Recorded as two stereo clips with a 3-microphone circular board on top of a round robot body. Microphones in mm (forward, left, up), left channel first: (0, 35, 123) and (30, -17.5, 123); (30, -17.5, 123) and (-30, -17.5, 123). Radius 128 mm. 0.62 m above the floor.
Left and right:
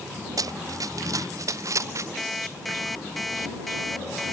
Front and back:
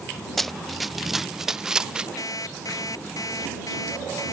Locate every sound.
0.4 s running footsteps: 85° right; by 2.1 s 105° right
2.2 s an alarm clock: 30° left